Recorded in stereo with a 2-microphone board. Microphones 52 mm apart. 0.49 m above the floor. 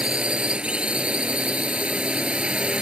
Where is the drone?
20° right (ahead or behind).